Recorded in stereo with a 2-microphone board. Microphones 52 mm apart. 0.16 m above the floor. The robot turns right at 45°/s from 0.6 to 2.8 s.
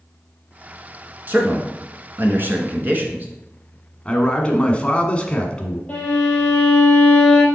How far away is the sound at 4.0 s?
About 1.2 m.